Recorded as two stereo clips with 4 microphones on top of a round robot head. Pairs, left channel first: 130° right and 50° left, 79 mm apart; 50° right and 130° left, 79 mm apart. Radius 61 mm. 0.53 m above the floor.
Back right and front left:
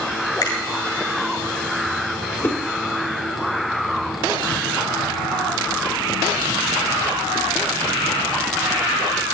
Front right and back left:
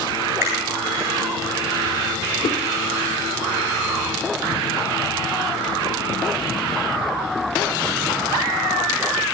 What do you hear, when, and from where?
0.4 s a finger snap: 170° right, 7.5 m
2.4 s a whoosh: 65° right, 2 m